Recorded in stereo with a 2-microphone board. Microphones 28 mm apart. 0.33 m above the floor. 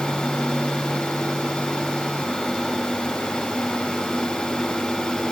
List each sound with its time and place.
Only background noise.